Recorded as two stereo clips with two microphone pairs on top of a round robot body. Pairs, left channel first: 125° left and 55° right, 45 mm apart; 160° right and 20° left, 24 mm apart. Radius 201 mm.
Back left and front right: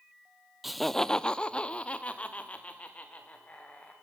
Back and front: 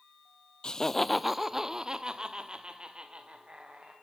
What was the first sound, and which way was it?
Laughter, 170° right.